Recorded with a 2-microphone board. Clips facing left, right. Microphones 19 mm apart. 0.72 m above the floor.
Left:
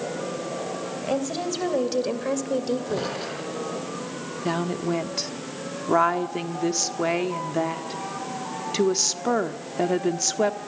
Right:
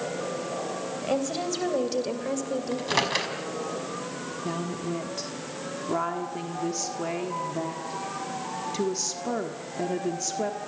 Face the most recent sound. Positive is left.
turn(degrees=40)  # may be behind; listen again after turning